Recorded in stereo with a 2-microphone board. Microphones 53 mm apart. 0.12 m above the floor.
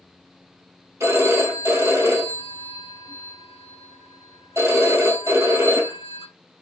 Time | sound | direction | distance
1.0 | a phone ringing | 70° right (ahead or behind) | 1.9 m